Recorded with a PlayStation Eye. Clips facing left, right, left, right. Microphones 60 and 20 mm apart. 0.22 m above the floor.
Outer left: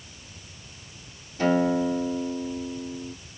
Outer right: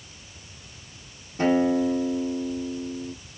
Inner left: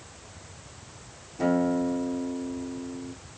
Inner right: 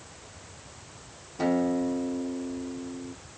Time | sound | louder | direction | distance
1.4 | a guitar | outer right 1 dB, inner left 1 dB | 30° right (ahead or behind) | 3.5 m